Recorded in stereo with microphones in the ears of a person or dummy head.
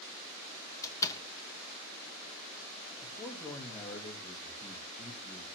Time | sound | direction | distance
0.8 | a door slam | 25° left (ahead or behind) | 1.5 m
3.0 | a man speaking | 10° left (ahead or behind) | 3 m